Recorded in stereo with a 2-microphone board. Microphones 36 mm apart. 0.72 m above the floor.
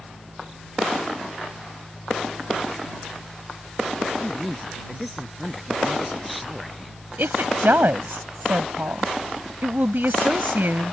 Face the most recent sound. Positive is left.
turn(degrees=-75)  # may be behind; listen again after turning